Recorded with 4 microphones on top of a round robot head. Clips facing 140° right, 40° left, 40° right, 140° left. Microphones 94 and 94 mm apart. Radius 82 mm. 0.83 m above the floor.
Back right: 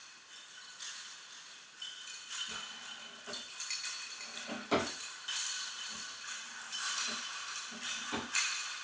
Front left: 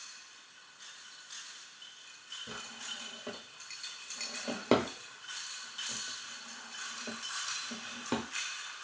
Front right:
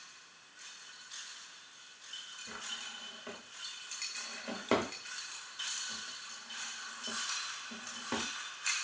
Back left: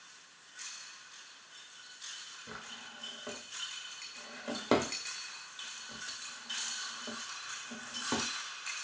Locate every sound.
2.5 s a drawer: 60° left, 0.7 m